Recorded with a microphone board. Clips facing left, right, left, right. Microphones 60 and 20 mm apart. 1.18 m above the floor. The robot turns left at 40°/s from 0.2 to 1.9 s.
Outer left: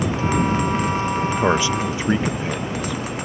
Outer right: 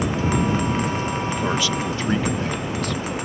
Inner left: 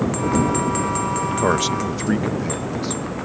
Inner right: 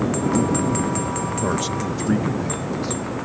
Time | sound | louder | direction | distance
1.2 | a man speaking | outer left 7 dB, inner left 4 dB | 40° left (ahead or behind) | ?